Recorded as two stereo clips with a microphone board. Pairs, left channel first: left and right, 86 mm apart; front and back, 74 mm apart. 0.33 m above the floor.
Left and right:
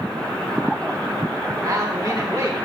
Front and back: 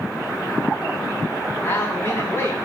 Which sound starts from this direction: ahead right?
A man speaking, at 1.6 s.